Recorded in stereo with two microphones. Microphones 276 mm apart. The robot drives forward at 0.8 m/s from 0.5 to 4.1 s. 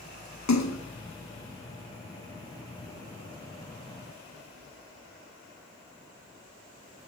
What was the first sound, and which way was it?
A splash, 80° left.